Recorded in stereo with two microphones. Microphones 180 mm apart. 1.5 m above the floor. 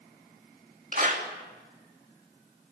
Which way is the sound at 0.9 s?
50° right (ahead or behind).